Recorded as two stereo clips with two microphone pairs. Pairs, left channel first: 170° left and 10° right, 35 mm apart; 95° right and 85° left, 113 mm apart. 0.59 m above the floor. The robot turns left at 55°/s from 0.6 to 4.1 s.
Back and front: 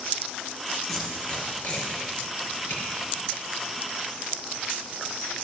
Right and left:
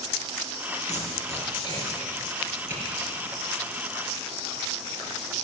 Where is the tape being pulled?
105° right, 4 m; by 2.8 s 150° left, 4 m.